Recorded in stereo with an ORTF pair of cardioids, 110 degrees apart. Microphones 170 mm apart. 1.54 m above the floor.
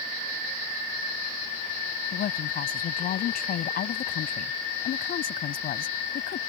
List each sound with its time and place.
2.1 s a woman speaking: 60° left